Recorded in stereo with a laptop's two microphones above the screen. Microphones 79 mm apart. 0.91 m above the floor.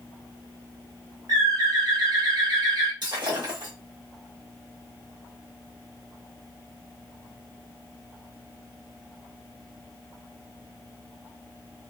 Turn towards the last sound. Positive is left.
turn(degrees=-70)  # may be behind; listen again after turning